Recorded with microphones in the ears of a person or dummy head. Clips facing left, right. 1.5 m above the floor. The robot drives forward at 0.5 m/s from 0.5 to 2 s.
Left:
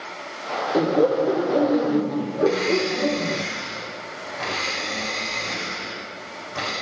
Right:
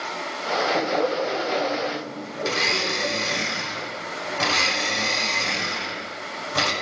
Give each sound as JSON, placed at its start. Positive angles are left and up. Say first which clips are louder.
{"t": 0.7, "sound": "laughter", "louder": "left 8 dB", "side_deg": 50, "distance_m": 1.3}
{"t": 2.5, "sound": "a blender", "louder": "left 7 dB", "side_deg": -65, "distance_m": 9.0}